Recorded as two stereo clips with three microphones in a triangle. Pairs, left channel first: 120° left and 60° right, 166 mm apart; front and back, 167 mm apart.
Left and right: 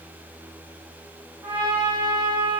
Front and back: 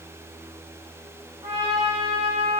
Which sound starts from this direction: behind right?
A trumpet, at 1.4 s.